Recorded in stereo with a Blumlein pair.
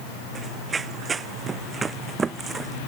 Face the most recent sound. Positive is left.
turn(degrees=-15)